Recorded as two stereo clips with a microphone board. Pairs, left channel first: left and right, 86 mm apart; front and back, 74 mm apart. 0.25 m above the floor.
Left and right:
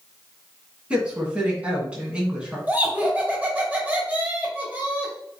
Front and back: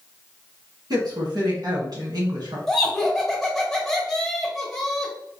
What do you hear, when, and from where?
0.9 s a woman speaking: 165° right, 2 m
2.7 s laughter: 75° right, 1.6 m